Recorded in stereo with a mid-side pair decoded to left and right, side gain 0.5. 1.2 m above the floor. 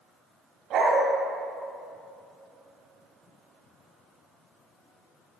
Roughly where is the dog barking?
Ahead right.